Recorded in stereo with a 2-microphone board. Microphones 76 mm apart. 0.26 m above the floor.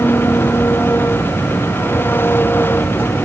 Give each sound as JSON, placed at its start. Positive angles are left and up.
{"t": 0.0, "sound": "an engine running", "side_deg": 25}